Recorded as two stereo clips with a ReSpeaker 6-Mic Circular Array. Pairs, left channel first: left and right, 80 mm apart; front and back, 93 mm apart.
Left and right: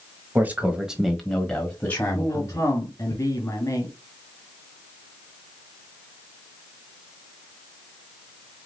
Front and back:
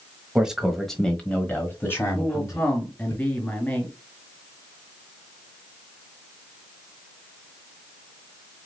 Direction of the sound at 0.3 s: 110° right.